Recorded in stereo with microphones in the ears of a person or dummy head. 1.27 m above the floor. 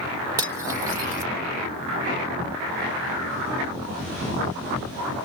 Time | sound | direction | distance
0.4 | cutlery clinking | 20° right (ahead or behind) | 0.6 m